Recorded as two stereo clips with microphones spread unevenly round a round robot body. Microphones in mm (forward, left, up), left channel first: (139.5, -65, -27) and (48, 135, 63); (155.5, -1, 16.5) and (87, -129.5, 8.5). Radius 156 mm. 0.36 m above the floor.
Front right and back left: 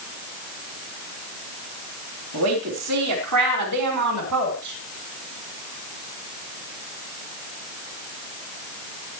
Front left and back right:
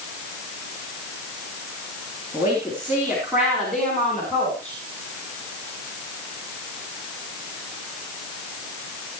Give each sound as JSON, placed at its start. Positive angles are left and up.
{"t": 2.3, "sound": "a woman speaking", "azimuth_deg": 165, "distance_m": 4.0}